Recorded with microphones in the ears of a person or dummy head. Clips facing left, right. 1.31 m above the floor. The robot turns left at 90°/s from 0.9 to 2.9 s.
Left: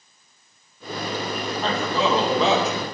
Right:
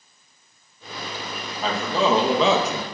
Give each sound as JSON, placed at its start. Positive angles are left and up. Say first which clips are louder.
{"t": 1.6, "sound": "a man speaking", "louder": "right 2 dB", "azimuth_deg": 0, "distance_m": 1.1}